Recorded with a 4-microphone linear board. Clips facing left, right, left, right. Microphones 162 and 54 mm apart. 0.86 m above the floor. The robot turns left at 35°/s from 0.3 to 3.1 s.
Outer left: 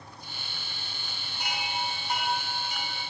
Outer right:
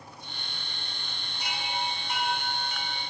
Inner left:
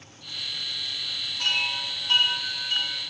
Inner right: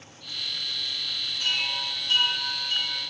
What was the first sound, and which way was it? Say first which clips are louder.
A chime: even, inner left 2 dB; 60° left.